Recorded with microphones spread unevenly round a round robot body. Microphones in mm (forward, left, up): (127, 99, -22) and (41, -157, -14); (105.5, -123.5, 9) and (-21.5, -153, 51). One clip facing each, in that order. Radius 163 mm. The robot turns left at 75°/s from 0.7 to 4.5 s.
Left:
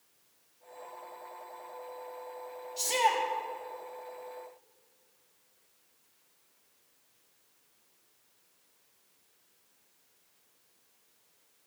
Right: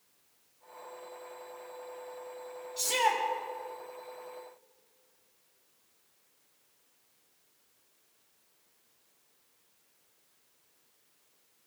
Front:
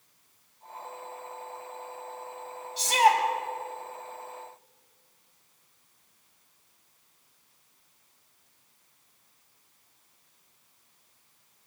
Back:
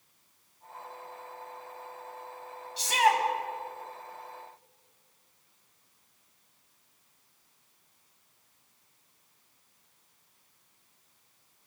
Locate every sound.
2.8 s a shout: 25° right, 6 m; by 3.2 s 55° right, 6 m